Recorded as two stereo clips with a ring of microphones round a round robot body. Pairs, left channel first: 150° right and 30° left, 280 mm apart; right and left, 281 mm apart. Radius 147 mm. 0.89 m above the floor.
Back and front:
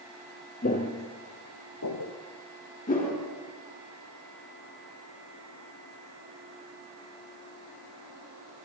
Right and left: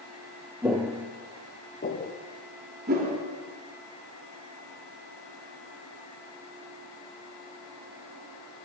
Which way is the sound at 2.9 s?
150° left.